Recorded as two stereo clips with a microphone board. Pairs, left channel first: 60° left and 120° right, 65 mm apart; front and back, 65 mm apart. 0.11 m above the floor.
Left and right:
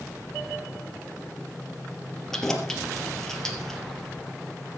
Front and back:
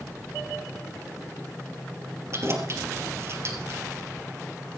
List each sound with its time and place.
2.3 s keys jangling: 140° left, 2 m